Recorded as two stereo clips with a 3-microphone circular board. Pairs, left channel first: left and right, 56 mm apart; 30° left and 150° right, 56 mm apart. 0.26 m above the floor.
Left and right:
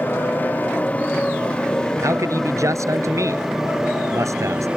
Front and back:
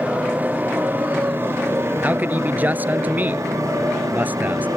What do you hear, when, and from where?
0.0 s a motorcycle: 145° left; by 4.8 s 160° right
2.0 s a man speaking: 95° right